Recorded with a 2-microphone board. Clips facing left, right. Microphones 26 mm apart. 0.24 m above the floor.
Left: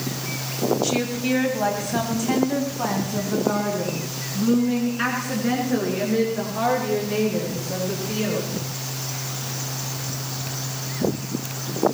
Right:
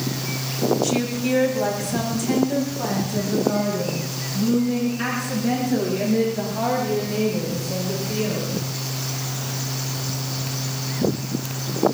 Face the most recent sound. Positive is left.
turn(degrees=25)  # may be behind; listen again after turning